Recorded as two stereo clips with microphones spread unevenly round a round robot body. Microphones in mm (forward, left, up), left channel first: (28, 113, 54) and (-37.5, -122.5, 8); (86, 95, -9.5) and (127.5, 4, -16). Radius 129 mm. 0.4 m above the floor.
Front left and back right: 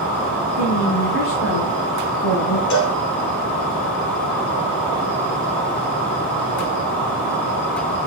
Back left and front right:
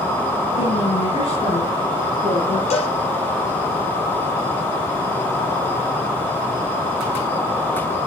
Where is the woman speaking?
115° left, 7 m; by 2.6 s 110° left, 4.5 m.